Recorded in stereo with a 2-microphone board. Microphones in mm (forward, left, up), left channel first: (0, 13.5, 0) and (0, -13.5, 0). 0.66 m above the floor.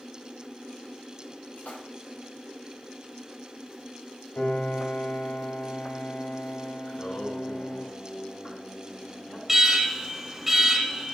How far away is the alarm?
About 0.8 m.